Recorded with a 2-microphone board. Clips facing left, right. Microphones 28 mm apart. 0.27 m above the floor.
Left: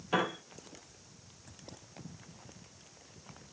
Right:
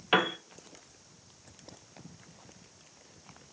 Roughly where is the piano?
Right.